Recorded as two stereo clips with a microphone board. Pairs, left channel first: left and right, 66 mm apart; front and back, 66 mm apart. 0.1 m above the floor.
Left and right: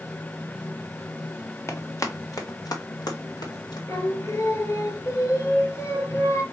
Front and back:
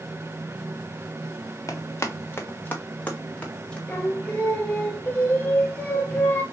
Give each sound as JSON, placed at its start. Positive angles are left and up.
{"t": 1.7, "sound": "running footsteps", "azimuth_deg": 40, "distance_m": 1.4}
{"t": 3.9, "sound": "singing", "azimuth_deg": 60, "distance_m": 1.3}